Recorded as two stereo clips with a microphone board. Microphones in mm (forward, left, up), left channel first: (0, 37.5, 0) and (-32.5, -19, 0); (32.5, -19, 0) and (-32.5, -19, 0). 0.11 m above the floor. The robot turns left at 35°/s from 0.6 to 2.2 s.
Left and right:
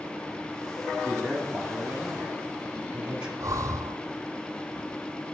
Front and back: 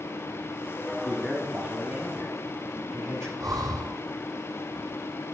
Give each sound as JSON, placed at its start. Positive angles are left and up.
{"t": 1.0, "sound": "a man speaking", "azimuth_deg": -25, "distance_m": 1.4}
{"t": 3.4, "sound": "breathing", "azimuth_deg": -155, "distance_m": 0.7}